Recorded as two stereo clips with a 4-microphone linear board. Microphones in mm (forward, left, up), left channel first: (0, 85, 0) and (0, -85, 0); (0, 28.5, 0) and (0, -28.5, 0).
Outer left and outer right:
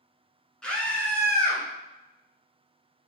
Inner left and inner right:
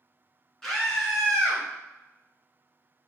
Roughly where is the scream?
Centre.